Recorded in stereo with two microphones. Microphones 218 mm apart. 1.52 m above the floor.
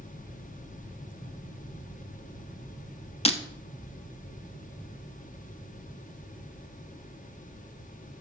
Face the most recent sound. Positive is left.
turn(degrees=25)  # may be behind; listen again after turning